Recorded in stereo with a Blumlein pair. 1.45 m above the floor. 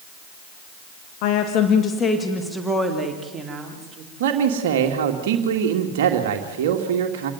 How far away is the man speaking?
About 2.5 m.